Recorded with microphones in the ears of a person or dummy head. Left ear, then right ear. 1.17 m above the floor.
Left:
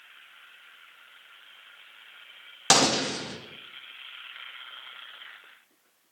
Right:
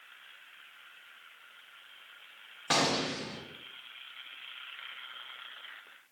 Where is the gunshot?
80° left, 0.6 m.